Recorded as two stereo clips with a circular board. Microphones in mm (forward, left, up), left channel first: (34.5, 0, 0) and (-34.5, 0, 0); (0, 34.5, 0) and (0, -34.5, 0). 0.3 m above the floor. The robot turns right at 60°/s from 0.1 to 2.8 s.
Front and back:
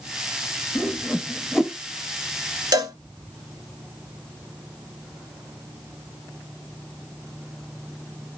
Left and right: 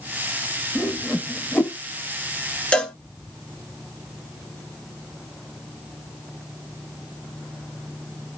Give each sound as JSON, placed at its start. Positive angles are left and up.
{"t": 0.8, "sound": "a whoosh", "azimuth_deg": 35, "distance_m": 1.1}
{"t": 2.7, "sound": "a cowbell", "azimuth_deg": 165, "distance_m": 0.7}